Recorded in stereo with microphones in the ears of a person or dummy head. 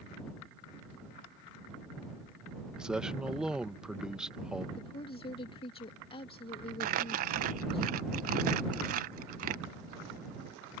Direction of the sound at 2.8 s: Centre (ahead or behind).